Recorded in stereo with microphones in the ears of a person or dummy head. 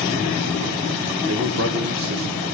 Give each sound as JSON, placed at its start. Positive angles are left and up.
{"t": 1.3, "sound": "a man speaking", "side_deg": -65, "distance_m": 1.2}